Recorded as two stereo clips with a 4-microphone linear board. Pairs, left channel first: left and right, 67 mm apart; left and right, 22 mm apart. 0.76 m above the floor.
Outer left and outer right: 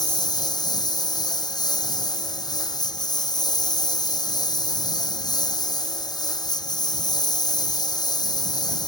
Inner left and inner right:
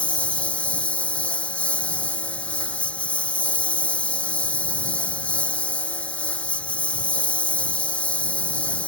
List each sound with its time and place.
0.0 s a lawn mower: 85° left